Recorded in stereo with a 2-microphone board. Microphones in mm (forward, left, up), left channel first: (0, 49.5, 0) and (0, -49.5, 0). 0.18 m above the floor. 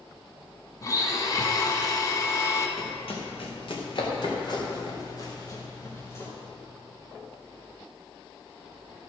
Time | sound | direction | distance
0.8 | a blender | 35° left (ahead or behind) | 1.5 m
2.8 | running footsteps | 70° left (ahead or behind) | 4 m